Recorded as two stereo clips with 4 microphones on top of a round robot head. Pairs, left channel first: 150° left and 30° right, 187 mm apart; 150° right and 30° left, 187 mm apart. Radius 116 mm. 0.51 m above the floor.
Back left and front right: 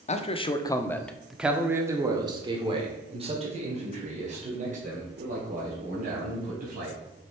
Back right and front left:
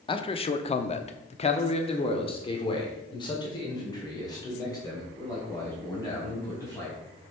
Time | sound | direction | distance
0.1 | a man speaking | 165° left | 0.9 m